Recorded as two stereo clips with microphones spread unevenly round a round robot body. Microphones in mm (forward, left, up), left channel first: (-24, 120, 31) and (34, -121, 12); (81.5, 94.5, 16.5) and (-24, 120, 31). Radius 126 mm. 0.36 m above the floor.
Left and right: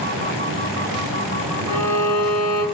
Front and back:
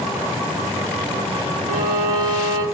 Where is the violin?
175° right, 1.2 m.